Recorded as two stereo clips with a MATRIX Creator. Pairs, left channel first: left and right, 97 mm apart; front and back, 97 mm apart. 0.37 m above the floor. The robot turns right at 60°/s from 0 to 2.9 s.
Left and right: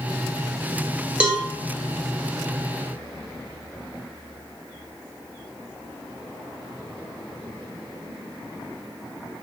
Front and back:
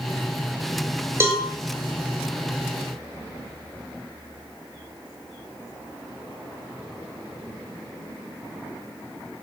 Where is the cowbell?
155° right, 0.7 m; by 1.5 s 140° right, 0.7 m.